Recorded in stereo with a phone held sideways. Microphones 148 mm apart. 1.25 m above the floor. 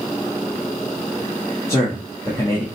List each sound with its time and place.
1.7 s a man speaking: 20° left (ahead or behind), 1.4 m